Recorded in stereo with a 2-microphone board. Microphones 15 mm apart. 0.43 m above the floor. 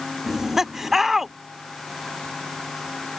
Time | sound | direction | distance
0.3 | laughter | 20° right (ahead or behind) | ?